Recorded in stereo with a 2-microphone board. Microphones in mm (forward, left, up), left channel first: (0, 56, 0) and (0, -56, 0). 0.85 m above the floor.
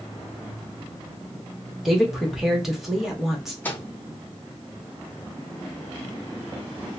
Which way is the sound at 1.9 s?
Centre (ahead or behind).